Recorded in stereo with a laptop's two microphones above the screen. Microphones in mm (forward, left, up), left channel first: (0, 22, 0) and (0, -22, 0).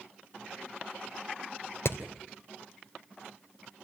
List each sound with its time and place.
1.9 s hammering: 75° left (ahead or behind), 2.5 m